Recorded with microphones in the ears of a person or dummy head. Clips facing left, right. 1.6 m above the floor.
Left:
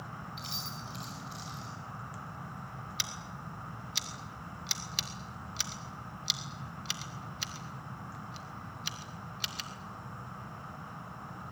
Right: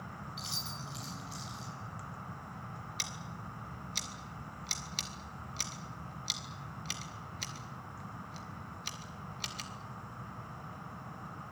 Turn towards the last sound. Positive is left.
turn(degrees=15)  # may be behind; listen again after turning